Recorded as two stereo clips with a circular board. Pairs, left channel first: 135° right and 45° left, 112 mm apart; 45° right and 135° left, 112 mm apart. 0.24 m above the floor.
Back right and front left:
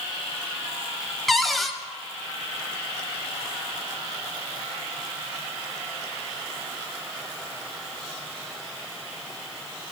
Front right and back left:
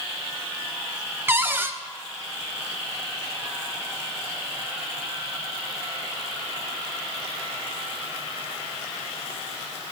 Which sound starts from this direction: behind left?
A cupboard door, at 1.3 s.